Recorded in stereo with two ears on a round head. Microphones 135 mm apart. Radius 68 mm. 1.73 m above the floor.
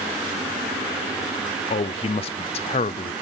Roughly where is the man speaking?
Left.